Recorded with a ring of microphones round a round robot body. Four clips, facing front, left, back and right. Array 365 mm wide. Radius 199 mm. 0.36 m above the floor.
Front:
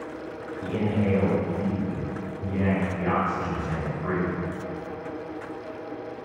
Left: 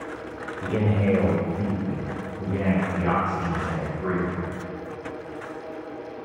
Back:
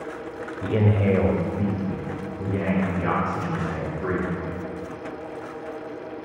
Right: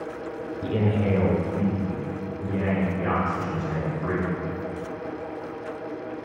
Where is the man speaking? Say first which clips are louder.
Left 1 dB, back 4 dB; 170° left, 1.5 m; by 4.3 s 155° left, 7 m.